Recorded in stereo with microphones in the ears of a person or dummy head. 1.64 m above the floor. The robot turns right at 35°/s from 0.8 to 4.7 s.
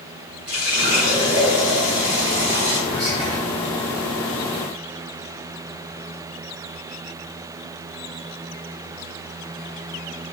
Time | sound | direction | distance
0.5 | a running tap | 150° right | 1.4 m
2.9 | whispering | 55° right (ahead or behind) | 1.0 m